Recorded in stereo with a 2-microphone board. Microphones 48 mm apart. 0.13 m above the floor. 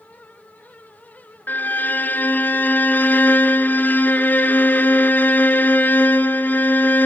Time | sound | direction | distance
1.5 | a violin | 40° left (ahead or behind) | 1.3 m